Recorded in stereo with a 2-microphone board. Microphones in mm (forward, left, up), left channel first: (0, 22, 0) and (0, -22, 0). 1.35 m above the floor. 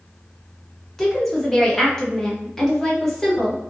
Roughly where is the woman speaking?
Centre.